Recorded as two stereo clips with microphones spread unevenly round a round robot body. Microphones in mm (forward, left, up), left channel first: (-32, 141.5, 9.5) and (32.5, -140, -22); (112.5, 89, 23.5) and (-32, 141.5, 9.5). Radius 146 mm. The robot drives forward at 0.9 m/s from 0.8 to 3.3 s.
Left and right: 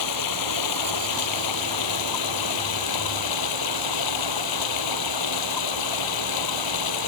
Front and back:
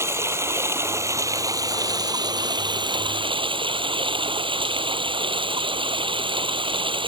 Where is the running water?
85° left; by 7.1 s 100° left.